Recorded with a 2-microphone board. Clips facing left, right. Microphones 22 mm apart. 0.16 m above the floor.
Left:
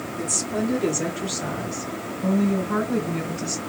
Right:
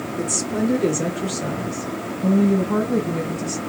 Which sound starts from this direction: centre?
A woman speaking, at 0.2 s.